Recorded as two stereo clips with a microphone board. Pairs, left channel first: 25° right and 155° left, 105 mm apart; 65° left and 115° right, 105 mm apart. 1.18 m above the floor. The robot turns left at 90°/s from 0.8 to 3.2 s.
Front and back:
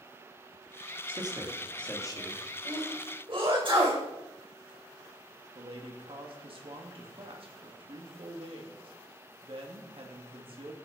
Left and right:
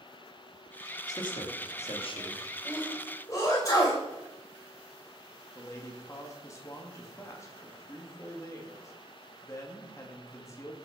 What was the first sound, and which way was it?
A man speaking, 125° left.